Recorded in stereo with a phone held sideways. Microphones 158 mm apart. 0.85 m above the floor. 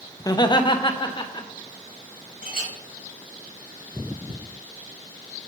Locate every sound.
0.2 s laughter: 25° left (ahead or behind), 0.7 m; by 1.5 s 35° left (ahead or behind), 1.9 m
2.4 s a clink: 85° right, 4 m